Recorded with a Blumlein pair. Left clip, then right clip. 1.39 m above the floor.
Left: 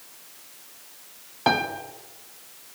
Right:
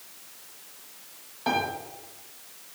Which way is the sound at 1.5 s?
60° left.